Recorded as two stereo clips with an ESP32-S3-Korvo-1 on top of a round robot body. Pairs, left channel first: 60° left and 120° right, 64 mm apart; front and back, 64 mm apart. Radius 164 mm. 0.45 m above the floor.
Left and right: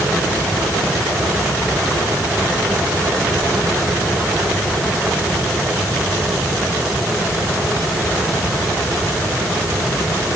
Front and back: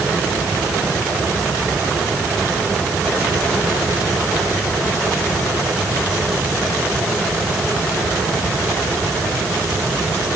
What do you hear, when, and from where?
Only background noise.